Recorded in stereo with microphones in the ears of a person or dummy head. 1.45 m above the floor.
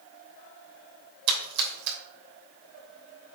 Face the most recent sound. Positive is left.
turn(degrees=-60)  # may be behind; listen again after turning